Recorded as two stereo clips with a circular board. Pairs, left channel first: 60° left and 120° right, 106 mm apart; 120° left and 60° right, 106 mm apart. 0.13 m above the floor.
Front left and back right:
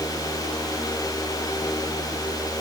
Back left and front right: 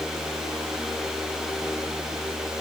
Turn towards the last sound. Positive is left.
No sound to turn to.